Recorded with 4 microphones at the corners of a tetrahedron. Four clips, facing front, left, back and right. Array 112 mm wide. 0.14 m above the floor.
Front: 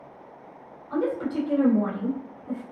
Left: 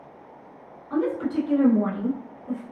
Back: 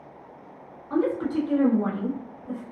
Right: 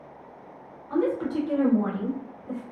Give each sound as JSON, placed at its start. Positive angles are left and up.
{"t": 0.9, "sound": "a woman speaking", "azimuth_deg": -175, "distance_m": 1.3}